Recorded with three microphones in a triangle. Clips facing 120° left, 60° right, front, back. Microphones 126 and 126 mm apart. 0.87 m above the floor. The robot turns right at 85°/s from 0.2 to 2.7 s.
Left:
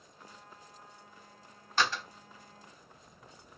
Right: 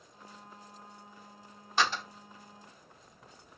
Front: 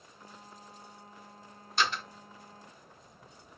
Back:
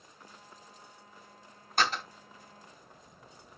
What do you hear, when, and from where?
1.8 s a door slam: 140° right, 3.5 m; by 2.0 s 115° right, 3.5 m